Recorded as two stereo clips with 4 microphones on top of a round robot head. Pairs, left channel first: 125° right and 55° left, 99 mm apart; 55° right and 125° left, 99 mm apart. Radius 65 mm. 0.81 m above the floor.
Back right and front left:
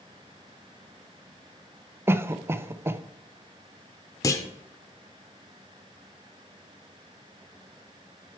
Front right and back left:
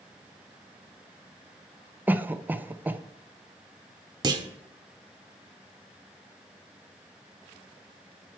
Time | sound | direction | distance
2.1 | a cough | 75° left | 0.6 m
4.2 | a clunk | 175° left | 0.8 m